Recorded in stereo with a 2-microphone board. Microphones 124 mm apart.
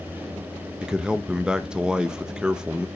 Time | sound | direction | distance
0.8 | a man speaking | 5° right (ahead or behind) | 0.5 m